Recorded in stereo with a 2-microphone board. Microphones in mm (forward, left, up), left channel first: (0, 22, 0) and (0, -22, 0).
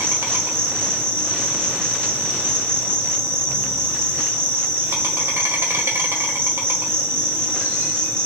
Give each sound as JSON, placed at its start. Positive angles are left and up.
{"t": 0.0, "sound": "an insect", "side_deg": -75, "distance_m": 0.9}